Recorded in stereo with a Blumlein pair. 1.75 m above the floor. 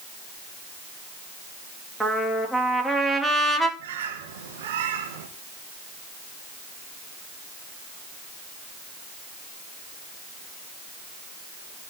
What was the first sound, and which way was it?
A trumpet, 5° right.